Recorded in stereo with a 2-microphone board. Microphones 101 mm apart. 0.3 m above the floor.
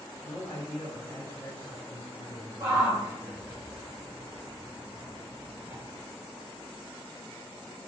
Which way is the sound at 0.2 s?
25° left (ahead or behind).